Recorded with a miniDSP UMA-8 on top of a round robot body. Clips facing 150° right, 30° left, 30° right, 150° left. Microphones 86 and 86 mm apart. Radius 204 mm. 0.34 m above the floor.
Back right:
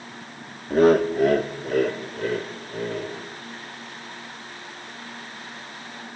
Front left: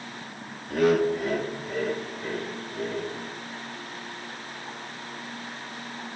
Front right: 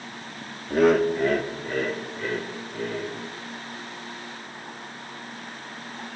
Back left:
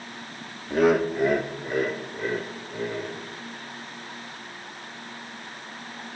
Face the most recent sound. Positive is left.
turn(degrees=-140)